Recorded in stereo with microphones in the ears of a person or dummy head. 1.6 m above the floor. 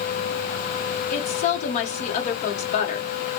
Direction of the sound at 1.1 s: 40° left (ahead or behind).